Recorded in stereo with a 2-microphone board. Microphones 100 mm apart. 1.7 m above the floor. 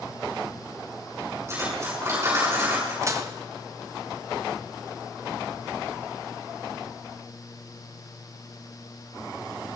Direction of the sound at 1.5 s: 25° right (ahead or behind).